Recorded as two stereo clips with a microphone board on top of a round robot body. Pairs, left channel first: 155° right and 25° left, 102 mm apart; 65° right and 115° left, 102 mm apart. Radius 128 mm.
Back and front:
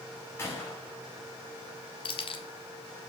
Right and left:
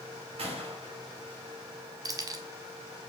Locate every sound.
0.4 s a gunshot: 135° left, 6 m
2.0 s keys jangling: 170° left, 1.7 m